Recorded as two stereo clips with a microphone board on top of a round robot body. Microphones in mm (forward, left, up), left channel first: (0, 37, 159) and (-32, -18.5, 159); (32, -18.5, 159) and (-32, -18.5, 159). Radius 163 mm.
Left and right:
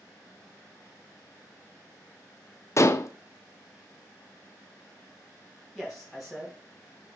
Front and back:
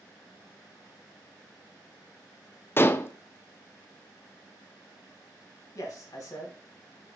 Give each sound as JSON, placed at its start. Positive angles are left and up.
{"t": 2.8, "sound": "dishes clattering", "azimuth_deg": 40, "distance_m": 0.7}
{"t": 5.8, "sound": "a man speaking", "azimuth_deg": -30, "distance_m": 3.5}